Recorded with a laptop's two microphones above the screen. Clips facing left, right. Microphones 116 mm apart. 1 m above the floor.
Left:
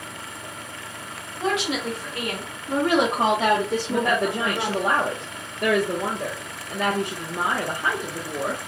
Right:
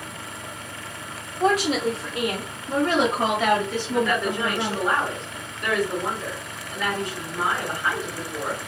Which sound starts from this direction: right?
A woman speaking, at 1.4 s.